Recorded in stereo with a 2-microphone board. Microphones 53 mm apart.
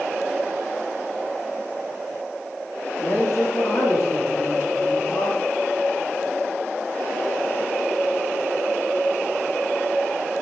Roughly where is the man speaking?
Left.